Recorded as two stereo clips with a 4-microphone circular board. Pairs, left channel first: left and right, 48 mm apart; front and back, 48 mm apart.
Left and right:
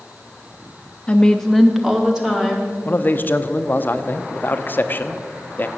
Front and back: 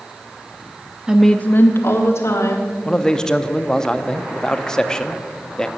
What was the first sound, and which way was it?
A woman speaking, 125° left.